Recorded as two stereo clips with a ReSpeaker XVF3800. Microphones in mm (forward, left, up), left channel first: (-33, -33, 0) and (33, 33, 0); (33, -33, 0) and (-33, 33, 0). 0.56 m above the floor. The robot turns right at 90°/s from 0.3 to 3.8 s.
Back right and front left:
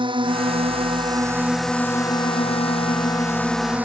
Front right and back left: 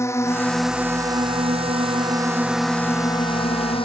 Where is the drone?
15° left; by 3.8 s 30° right.